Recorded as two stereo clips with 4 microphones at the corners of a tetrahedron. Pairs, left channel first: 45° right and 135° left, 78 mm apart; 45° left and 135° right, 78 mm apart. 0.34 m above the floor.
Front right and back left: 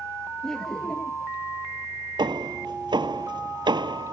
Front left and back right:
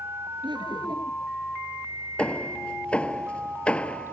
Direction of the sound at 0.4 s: 130° right.